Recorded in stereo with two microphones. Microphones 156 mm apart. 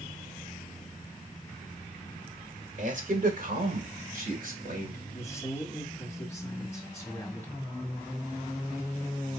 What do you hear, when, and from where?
2.8 s a man speaking: 60° right (ahead or behind), 1.4 m; by 5.0 s 65° right (ahead or behind), 2.5 m
5.1 s a man speaking: 20° left (ahead or behind), 1.6 m